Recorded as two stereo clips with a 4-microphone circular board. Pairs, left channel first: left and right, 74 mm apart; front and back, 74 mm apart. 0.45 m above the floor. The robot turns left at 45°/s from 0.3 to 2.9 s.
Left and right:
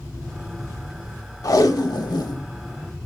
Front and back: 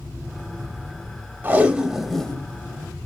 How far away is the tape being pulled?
About 0.6 m.